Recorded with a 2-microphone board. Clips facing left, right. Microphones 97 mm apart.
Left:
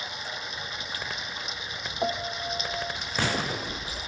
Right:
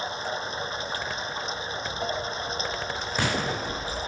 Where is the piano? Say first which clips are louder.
Left 3 dB; 25° left (ahead or behind).